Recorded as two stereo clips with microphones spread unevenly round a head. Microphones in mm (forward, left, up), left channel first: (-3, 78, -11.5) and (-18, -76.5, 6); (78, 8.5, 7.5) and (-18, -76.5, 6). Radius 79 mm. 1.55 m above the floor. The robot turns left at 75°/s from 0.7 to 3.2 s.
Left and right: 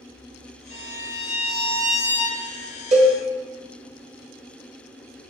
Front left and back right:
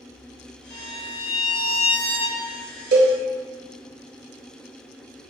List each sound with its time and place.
0.7 s a violin: 90° left, 1.2 m; by 2.7 s 60° right, 1.2 m
2.9 s a cowbell: 145° right, 0.8 m; by 3.2 s 160° right, 0.8 m